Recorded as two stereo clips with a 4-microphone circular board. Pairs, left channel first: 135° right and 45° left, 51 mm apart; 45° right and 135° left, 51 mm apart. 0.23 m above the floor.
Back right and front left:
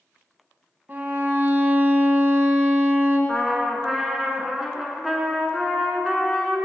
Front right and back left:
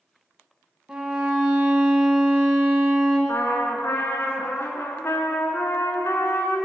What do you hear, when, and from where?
0.9 s a violin: 75° left, 1.0 m
3.3 s a trumpet: 45° right, 0.8 m